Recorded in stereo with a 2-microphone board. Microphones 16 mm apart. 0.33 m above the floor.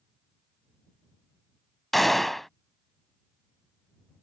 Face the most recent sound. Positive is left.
turn(degrees=15)  # may be behind; listen again after turning